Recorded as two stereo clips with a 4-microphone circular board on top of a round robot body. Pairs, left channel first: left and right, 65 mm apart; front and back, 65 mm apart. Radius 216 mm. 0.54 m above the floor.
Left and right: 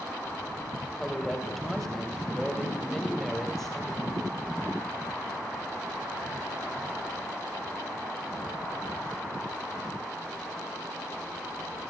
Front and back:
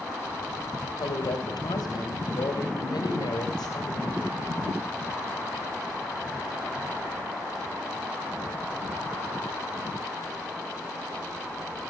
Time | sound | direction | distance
0.8 | a woman speaking | 5° left | 3.5 m